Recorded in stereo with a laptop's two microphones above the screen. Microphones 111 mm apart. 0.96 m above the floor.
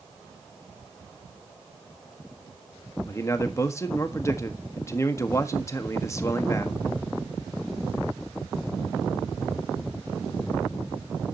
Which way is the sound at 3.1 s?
25° left (ahead or behind).